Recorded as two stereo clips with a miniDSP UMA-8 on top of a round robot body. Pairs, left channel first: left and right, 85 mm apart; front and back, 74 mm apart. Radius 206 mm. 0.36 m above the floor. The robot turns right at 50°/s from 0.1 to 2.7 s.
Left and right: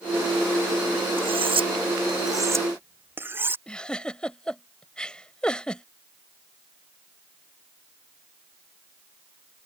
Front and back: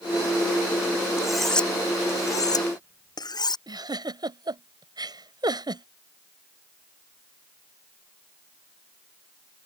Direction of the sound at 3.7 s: 170° left.